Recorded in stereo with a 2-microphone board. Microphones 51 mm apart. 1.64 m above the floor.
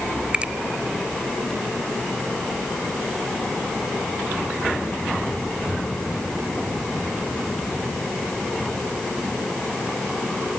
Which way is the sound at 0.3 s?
25° right (ahead or behind).